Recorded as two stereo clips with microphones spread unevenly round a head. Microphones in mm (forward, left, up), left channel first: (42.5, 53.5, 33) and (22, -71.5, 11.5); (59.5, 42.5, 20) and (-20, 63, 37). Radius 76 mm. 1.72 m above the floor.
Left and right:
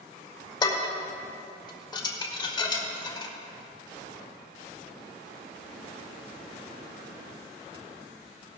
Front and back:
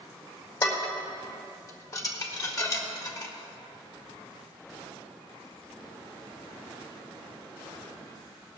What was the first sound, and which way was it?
Dishes clattering, 35° left.